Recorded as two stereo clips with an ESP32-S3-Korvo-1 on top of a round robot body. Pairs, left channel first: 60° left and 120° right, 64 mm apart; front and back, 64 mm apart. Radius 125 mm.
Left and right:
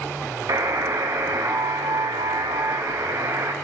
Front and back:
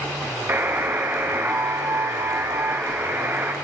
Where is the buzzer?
135° right, 1.3 m.